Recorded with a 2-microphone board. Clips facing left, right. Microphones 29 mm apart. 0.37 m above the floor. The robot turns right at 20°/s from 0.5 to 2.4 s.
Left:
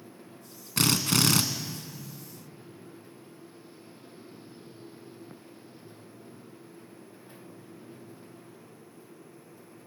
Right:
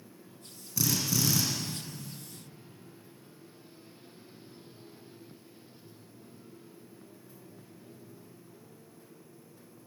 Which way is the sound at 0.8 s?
60° left (ahead or behind).